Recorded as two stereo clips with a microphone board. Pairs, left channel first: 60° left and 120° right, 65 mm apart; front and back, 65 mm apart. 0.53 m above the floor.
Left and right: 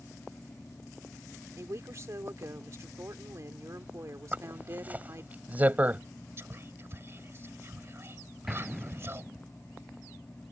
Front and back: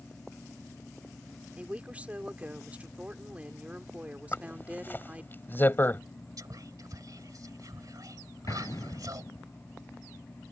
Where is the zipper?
55° right.